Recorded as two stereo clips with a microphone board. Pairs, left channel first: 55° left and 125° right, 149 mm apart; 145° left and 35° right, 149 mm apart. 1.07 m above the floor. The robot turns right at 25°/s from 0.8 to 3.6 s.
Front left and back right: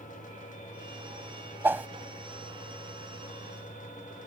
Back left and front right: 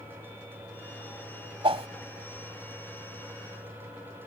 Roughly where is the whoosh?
Ahead right.